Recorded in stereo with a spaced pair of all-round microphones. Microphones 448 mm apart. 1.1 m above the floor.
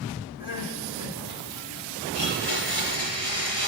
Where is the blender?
65° right (ahead or behind), 5 m.